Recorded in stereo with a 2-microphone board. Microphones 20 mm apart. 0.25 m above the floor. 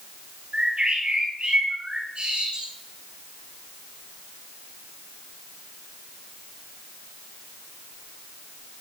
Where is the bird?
60° right (ahead or behind), 9.5 m.